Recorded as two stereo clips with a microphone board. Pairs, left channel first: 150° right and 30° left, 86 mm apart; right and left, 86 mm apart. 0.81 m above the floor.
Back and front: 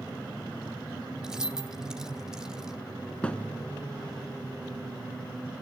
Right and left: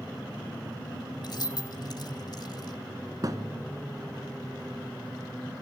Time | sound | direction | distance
1.2 | keys jangling | 55° right | 1.6 m
3.2 | a thud | 135° left | 2 m